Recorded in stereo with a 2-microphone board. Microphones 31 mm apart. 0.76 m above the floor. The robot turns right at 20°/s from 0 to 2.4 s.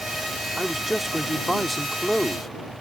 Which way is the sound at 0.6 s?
20° right.